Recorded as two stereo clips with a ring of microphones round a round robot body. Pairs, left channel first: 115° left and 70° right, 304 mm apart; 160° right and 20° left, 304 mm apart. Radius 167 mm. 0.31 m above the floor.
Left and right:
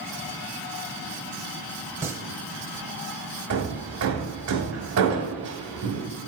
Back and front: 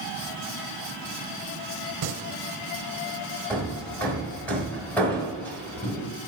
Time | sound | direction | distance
2.0 | singing | 15° left | 0.9 m
3.5 | hammering | 75° right | 1.4 m